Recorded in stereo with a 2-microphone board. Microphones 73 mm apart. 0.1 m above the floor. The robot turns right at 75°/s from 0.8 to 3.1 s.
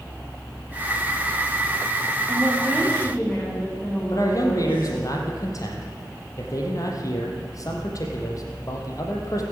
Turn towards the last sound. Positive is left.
turn(degrees=50)  # may be behind; listen again after turning